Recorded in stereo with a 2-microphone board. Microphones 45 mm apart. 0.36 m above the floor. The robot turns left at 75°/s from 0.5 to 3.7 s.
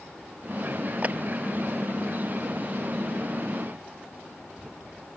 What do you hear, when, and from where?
1.0 s a clap: 35° right (ahead or behind); by 1.2 s 25° right (ahead or behind)